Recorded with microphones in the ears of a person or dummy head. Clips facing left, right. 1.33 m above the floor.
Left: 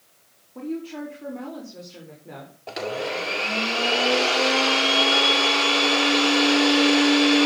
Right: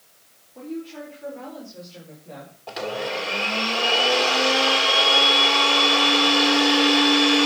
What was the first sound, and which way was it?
A woman speaking, 60° left (ahead or behind).